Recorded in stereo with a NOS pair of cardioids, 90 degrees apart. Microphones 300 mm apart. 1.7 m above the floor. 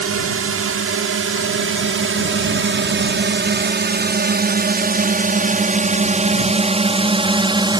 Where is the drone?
50° right; by 7.8 s 15° right.